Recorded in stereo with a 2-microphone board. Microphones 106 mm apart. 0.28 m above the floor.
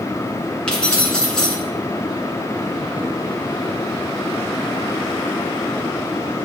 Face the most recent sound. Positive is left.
turn(degrees=10)  # may be behind; listen again after turning